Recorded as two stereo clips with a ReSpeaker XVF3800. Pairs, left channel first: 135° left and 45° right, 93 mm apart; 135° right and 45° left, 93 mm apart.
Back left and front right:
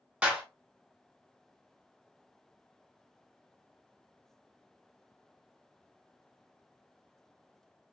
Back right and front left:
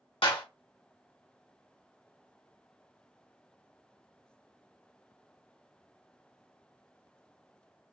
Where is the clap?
120° right, 1.7 m.